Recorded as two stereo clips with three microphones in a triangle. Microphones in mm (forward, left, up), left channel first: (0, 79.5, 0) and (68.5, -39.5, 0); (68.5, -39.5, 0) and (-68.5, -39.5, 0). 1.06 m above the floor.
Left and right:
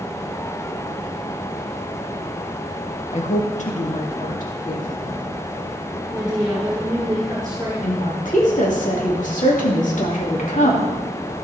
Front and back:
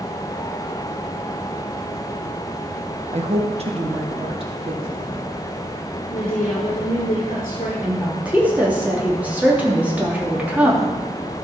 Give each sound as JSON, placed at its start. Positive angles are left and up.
{"t": 3.1, "sound": "a woman speaking", "azimuth_deg": 145, "distance_m": 1.2}
{"t": 6.1, "sound": "a woman speaking", "azimuth_deg": 10, "distance_m": 3.0}
{"t": 7.8, "sound": "a woman speaking", "azimuth_deg": 100, "distance_m": 2.5}